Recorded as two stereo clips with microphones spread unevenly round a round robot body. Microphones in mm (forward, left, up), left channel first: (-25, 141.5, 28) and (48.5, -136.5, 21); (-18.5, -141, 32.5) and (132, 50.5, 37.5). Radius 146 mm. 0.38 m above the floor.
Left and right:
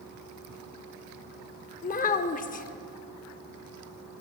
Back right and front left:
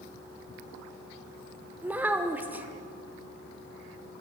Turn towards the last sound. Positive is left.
turn(degrees=130)